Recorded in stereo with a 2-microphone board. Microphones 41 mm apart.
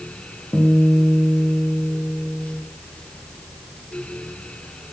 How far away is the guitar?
About 7.5 m.